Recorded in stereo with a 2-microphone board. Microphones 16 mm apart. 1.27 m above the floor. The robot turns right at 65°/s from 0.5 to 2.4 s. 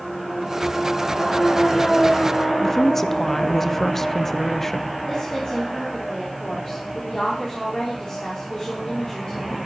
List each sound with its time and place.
2.6 s a woman speaking: 20° left (ahead or behind), 0.6 m
5.1 s a woman speaking: 50° left (ahead or behind), 3 m